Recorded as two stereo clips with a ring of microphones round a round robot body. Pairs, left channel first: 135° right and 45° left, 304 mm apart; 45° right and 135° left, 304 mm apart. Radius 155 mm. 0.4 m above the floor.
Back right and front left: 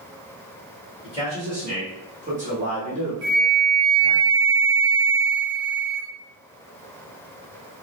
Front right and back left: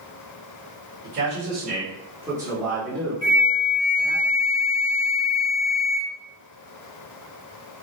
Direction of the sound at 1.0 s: 110° left.